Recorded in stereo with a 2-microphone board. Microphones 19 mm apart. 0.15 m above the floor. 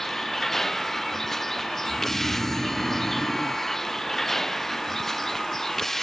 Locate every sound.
0.0 s a vehicle: 15° left (ahead or behind)
1.8 s snoring: 50° left (ahead or behind)